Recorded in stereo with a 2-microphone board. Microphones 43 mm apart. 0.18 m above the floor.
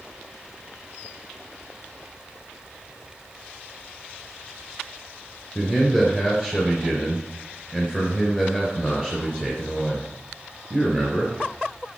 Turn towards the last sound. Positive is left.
turn(degrees=20)  # may be behind; listen again after turning